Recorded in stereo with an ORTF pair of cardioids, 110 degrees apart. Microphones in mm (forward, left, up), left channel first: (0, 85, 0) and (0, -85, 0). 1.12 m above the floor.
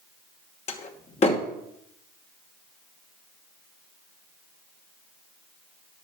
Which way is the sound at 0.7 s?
40° left.